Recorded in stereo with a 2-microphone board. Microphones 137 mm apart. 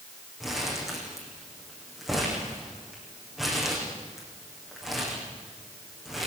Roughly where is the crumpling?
Centre.